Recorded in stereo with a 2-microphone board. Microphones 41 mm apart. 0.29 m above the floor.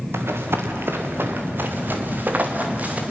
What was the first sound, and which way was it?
Running footsteps, 85° right.